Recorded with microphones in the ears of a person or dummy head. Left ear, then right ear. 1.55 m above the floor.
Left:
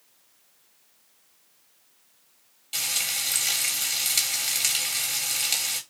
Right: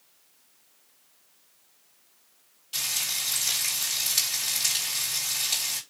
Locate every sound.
2.7 s frying: 20° left (ahead or behind), 2.5 m